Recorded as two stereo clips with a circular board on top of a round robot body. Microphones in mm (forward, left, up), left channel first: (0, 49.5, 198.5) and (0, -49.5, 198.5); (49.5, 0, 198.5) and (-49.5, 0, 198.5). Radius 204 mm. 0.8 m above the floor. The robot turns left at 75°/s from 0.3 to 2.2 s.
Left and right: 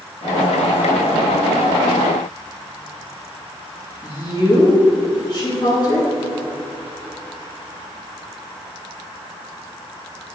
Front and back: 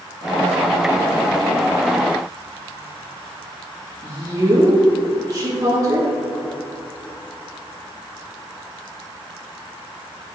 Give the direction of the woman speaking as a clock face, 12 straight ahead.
8 o'clock.